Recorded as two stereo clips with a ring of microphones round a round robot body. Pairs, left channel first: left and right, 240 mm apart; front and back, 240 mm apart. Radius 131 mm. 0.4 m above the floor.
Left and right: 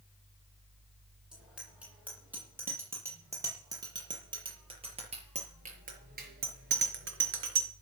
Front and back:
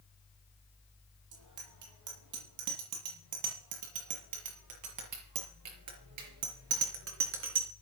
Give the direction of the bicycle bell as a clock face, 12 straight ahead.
6 o'clock.